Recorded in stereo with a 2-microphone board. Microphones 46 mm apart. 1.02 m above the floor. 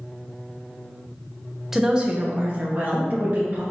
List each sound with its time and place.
1.7 s a woman speaking: 5° right (ahead or behind), 0.6 m; by 3.6 s 40° right (ahead or behind), 1.8 m